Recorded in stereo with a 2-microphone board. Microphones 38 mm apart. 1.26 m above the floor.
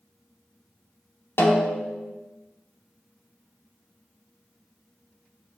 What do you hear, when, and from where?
1.4 s a snare drum: 75° left (ahead or behind), 0.6 m